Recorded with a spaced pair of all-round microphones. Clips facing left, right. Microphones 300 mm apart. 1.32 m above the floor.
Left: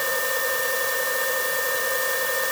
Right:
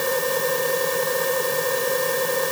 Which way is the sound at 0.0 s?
55° right (ahead or behind).